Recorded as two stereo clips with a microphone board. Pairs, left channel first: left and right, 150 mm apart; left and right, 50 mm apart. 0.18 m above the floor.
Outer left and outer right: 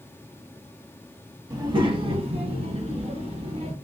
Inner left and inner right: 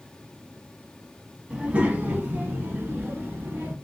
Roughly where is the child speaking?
Right.